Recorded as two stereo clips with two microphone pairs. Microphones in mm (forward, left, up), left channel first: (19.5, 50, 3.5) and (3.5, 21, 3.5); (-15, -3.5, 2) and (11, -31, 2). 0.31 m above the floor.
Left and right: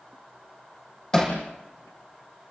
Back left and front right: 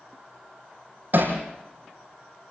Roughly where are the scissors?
I don't hear scissors.